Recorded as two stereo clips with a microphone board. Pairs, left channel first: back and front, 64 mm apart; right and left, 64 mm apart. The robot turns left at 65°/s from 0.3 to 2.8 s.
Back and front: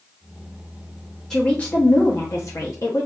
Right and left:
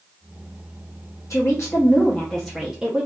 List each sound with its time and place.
1.3 s a woman speaking: 100° right, 0.6 m; by 3.1 s 160° left, 0.6 m